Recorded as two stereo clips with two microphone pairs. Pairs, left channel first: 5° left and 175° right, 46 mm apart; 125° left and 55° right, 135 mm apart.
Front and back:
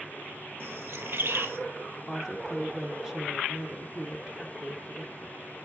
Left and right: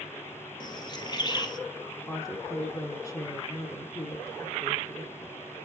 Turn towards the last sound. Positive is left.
turn(degrees=120)